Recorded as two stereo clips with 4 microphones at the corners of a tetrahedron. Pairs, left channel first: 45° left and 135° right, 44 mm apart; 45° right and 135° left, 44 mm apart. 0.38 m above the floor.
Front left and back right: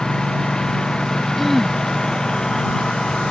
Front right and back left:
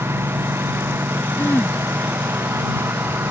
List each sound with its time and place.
0.0 s a lawn mower: 125° left
1.4 s throat clearing: 40° right